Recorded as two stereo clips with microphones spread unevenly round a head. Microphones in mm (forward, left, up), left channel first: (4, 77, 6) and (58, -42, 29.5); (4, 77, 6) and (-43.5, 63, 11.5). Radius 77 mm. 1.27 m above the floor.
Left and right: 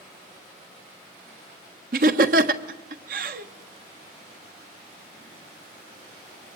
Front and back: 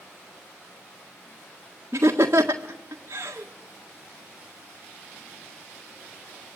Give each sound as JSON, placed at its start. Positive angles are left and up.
{"t": 1.9, "sound": "laughter", "azimuth_deg": -100, "distance_m": 1.6}